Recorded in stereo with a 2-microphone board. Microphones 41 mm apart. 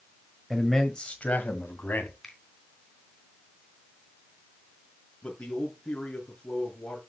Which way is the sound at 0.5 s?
Centre (ahead or behind).